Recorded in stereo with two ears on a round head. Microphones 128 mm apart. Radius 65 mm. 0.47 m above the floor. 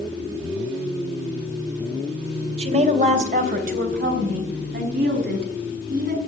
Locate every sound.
2.6 s a woman speaking: 50° right (ahead or behind), 2.5 m; by 6.2 s 70° right (ahead or behind), 5.5 m